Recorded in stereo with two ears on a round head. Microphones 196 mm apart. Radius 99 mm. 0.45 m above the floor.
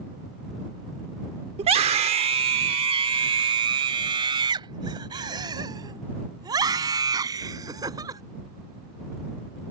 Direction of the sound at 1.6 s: 30° right (ahead or behind).